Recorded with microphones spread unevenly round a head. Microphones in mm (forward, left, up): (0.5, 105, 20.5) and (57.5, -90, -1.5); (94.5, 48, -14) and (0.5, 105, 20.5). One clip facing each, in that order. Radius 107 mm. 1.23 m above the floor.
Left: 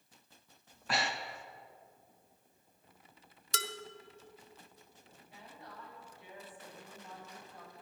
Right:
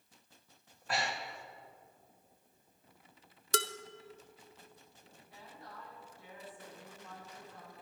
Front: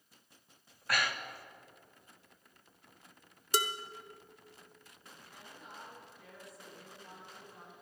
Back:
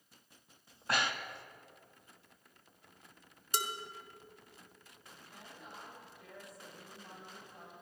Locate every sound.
0.7 s breathing: 95° left, 1.1 m
3.5 s dishes clattering: 30° right, 0.7 m
5.3 s a woman speaking: 175° left, 6 m